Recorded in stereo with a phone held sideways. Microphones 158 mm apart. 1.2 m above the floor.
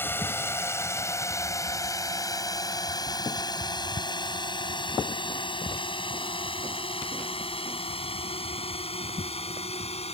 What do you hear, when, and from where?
0.0 s a drone: 15° left (ahead or behind); by 10.2 s 40° left (ahead or behind)